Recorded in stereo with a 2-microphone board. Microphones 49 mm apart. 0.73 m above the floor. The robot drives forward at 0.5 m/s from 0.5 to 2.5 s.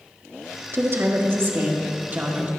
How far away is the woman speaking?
About 1.1 m.